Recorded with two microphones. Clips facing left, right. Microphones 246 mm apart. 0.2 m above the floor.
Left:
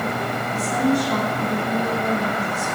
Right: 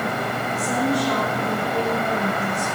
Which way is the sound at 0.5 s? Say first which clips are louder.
Left 3 dB; 75° right (ahead or behind).